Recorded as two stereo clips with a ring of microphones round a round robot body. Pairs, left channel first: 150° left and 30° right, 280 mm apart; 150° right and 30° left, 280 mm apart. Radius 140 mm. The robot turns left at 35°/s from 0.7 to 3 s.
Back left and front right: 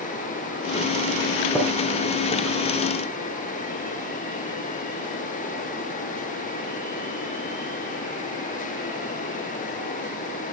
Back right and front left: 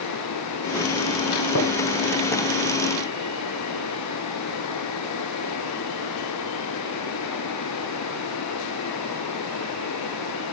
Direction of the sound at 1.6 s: 120° right.